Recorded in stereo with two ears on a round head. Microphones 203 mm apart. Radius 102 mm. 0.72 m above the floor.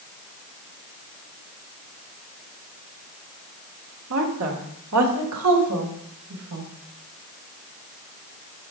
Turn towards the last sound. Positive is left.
turn(degrees=-80)